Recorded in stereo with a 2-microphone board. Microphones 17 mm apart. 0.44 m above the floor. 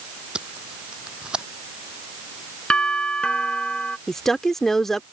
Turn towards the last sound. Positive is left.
turn(degrees=20)  # may be behind; listen again after turning